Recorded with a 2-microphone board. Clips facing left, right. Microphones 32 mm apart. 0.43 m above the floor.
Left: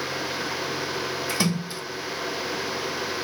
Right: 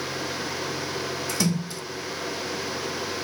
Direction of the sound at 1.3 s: 30° left (ahead or behind).